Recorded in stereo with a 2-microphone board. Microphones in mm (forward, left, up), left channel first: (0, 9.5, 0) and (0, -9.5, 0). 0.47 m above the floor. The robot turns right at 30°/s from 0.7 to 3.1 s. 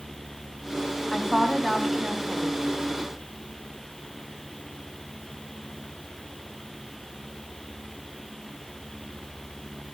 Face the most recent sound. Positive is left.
turn(degrees=60)